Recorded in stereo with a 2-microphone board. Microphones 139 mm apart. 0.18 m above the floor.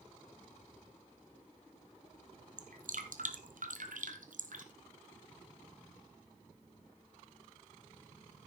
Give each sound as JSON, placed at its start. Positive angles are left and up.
{"t": 2.6, "sound": "dripping", "side_deg": -70, "distance_m": 1.5}